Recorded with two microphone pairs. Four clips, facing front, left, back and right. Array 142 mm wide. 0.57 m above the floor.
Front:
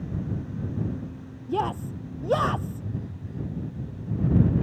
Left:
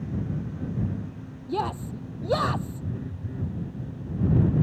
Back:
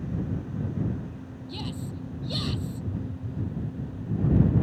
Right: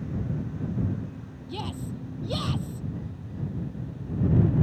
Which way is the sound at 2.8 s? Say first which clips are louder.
Left 2 dB, back 1 dB; 95° left.